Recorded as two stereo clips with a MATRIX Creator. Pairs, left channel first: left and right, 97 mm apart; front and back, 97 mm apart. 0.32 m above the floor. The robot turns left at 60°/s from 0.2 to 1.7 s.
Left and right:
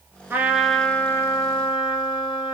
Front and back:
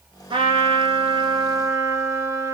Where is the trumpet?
155° right, 0.6 m; by 2.5 s 120° left, 0.6 m.